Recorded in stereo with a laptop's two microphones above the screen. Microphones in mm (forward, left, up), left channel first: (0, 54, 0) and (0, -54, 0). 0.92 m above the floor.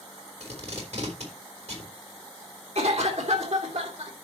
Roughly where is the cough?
Right.